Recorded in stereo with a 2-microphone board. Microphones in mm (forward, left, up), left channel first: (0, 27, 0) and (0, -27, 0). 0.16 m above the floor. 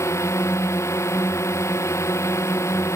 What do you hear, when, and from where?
0.0 s a drone: 65° left (ahead or behind)